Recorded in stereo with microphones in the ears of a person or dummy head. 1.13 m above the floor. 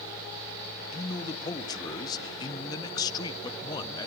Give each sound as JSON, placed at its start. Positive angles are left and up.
{"t": 0.9, "sound": "a man speaking", "side_deg": 25, "distance_m": 1.0}